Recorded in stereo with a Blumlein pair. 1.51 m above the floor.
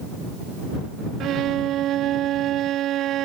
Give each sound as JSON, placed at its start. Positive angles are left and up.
{"t": 1.2, "sound": "a violin", "azimuth_deg": -30}